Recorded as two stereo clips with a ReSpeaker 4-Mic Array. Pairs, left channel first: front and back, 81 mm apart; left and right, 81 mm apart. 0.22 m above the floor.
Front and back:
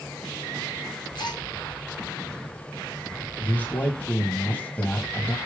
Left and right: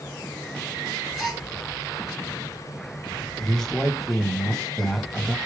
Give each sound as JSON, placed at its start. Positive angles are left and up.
{"t": 1.1, "sound": "a gasp", "azimuth_deg": 0, "distance_m": 2.0}
{"t": 3.4, "sound": "a man speaking", "azimuth_deg": 15, "distance_m": 1.3}